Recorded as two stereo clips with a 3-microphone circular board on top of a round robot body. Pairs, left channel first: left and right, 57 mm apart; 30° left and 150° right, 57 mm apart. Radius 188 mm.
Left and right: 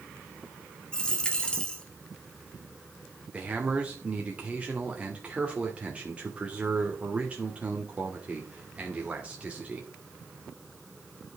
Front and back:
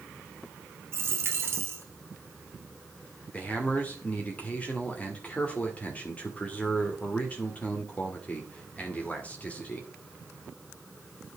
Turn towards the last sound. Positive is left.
turn(degrees=-30)